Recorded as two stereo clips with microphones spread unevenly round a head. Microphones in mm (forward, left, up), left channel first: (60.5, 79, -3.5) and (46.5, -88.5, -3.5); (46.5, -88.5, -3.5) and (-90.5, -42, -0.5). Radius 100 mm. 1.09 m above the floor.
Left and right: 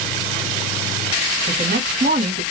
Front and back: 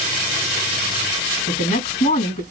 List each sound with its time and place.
1.5 s a woman speaking: 45° right, 2.0 m